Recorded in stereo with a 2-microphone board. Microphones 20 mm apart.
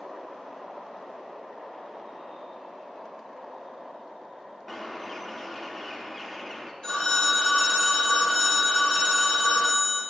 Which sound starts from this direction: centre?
A bird, at 4.7 s.